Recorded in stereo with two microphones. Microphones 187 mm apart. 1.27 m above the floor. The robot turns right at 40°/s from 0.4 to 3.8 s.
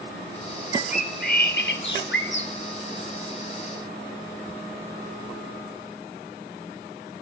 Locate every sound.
0.7 s a bird: 35° left, 3 m; by 2.5 s 105° left, 3 m